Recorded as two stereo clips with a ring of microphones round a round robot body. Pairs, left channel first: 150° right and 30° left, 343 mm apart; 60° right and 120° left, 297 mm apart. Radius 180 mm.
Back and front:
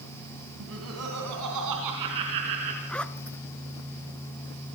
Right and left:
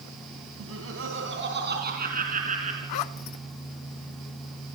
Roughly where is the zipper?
Ahead right.